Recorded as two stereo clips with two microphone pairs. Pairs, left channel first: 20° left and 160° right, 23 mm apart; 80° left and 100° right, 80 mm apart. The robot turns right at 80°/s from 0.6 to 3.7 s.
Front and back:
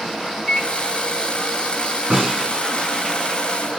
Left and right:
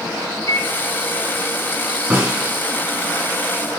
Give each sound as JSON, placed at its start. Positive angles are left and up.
{"t": 0.5, "sound": "a microwave", "azimuth_deg": 60, "distance_m": 1.0}
{"t": 2.1, "sound": "a snare drum", "azimuth_deg": -155, "distance_m": 1.5}